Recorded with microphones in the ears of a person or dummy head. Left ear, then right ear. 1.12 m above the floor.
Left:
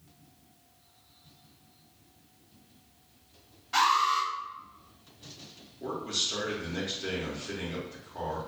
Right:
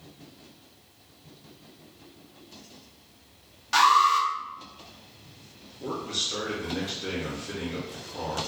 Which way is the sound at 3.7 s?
45° right (ahead or behind).